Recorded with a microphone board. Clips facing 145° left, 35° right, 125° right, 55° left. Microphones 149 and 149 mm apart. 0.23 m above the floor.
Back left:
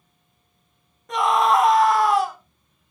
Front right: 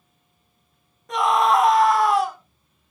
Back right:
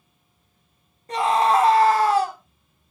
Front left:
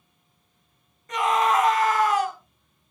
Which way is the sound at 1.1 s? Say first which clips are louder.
Even, back right 3 dB; 125° right.